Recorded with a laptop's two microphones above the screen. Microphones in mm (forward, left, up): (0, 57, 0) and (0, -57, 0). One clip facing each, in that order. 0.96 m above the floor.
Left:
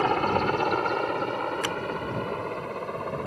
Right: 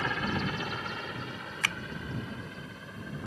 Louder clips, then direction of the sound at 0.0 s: Left 9 dB; 50° left (ahead or behind).